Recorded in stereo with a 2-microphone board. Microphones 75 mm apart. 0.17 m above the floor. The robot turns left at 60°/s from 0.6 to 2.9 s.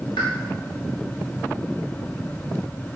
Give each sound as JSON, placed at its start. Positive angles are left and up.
{"t": 0.2, "sound": "a pop", "side_deg": 85, "distance_m": 5.0}